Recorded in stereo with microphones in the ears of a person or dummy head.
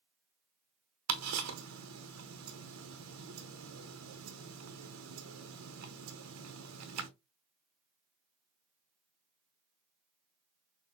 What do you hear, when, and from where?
1.1 s ticking: 75° right (ahead or behind), 0.9 m